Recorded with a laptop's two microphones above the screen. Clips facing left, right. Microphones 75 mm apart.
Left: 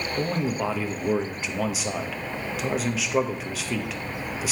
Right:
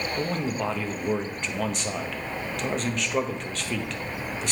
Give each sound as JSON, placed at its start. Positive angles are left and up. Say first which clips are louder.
{"t": 0.2, "sound": "a man speaking", "louder": "left 3 dB", "side_deg": 5, "distance_m": 1.1}